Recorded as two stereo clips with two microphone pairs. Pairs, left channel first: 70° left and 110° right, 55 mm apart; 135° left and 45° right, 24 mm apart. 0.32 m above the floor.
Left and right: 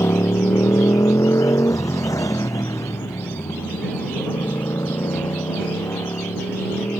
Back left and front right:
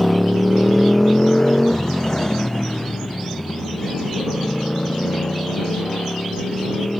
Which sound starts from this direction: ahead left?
A motorcycle, at 0.0 s.